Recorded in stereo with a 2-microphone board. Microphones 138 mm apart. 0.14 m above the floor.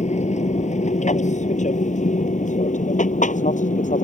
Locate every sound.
0.0 s an aircraft: 55° left (ahead or behind); by 4.0 s 65° left (ahead or behind)